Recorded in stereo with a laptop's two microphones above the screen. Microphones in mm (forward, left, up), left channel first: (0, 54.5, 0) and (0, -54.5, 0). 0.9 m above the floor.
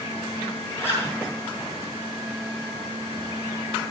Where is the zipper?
25° left (ahead or behind), 5.5 m.